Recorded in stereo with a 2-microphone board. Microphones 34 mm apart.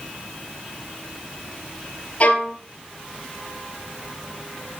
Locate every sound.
2.2 s a violin: 40° left (ahead or behind), 2 m